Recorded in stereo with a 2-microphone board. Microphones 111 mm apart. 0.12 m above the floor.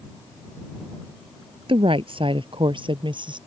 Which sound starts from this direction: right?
A woman speaking, at 1.7 s.